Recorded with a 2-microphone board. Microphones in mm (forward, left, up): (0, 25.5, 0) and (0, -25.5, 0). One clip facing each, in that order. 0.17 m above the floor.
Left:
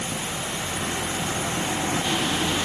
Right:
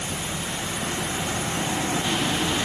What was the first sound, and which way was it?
Only background noise.